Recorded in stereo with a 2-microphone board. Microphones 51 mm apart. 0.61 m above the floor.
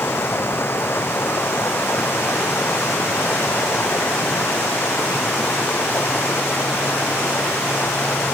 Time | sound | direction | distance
0.0 | running water | 50° left (ahead or behind) | ?